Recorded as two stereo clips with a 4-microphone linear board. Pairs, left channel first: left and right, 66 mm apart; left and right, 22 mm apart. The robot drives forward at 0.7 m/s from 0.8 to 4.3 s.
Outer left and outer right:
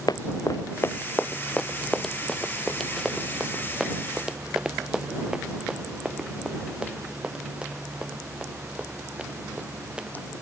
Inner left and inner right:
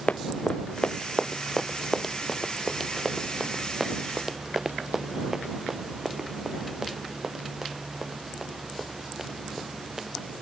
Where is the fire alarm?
No fire alarm in this recording.